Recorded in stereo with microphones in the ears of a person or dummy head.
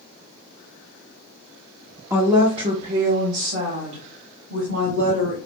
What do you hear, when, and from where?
2.1 s a woman speaking: 10° right (ahead or behind), 0.7 m; by 5.4 s 60° right (ahead or behind), 2.5 m